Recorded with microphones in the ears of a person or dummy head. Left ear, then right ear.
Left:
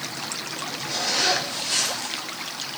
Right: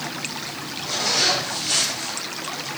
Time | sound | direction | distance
0.8 | a zipper | 85° right | 6 m